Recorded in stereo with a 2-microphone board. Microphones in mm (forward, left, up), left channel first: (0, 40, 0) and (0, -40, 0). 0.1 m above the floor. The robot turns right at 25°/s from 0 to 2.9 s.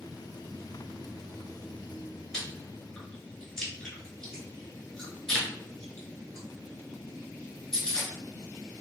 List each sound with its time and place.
2.3 s chewing: 15° left (ahead or behind), 1.2 m; by 8.1 s 10° left (ahead or behind), 1.2 m